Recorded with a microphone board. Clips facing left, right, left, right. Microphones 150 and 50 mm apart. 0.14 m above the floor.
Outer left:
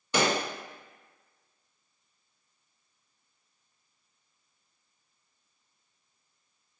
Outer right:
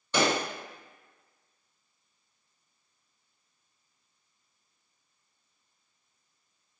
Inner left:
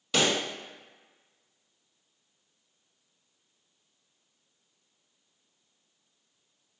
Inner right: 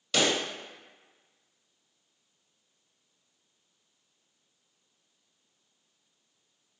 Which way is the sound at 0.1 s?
10° left (ahead or behind).